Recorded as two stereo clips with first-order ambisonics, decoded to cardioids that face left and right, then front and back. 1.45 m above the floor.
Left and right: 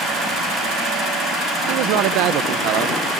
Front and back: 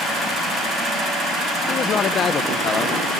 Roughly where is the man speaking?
Ahead right.